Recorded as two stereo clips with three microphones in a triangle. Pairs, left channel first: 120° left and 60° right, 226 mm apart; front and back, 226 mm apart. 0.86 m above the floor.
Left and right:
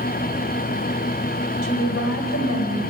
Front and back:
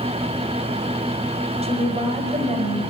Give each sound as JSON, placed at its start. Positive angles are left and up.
{"t": 1.6, "sound": "a woman speaking", "azimuth_deg": 120, "distance_m": 4.5}